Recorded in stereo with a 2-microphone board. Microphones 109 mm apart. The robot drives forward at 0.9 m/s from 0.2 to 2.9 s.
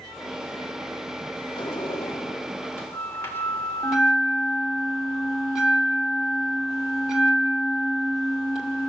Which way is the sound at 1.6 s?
45° left (ahead or behind).